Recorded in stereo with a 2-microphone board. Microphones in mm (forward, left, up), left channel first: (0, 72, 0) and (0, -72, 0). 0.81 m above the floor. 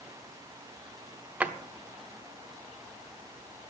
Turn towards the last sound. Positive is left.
turn(degrees=-10)  # may be behind; listen again after turning